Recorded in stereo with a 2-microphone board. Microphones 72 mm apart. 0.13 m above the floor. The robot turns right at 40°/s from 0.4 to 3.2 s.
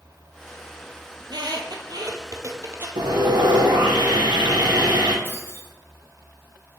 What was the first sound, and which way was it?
A squeak, 70° right (ahead or behind).